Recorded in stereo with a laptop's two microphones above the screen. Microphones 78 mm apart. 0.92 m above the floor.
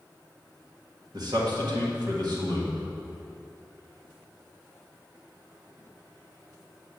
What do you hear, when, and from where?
1.1 s a man speaking: 60° right (ahead or behind), 1.6 m